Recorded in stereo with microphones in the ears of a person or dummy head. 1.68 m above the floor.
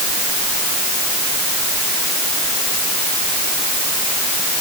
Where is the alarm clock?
I don't hear an alarm clock.